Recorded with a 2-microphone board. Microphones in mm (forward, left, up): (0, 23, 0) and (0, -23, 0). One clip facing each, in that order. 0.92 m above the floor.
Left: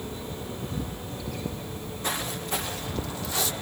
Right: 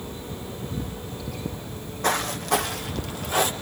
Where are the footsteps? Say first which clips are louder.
Right 11 dB; 60° right (ahead or behind), 3 m; by 3.5 s 45° right (ahead or behind), 2.0 m.